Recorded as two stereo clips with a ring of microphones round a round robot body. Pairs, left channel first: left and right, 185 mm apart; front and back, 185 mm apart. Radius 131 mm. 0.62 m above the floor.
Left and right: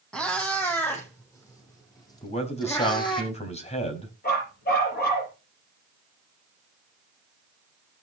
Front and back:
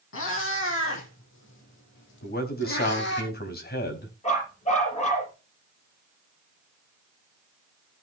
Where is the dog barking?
55° left, 7.5 m.